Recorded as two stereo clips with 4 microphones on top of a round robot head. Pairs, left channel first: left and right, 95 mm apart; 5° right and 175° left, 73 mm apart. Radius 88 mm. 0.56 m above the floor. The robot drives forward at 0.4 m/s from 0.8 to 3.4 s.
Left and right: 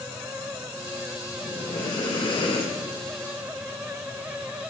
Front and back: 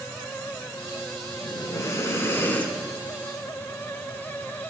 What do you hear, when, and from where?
1.4 s breathing: 40° left, 1.1 m; by 3.0 s 75° left, 0.8 m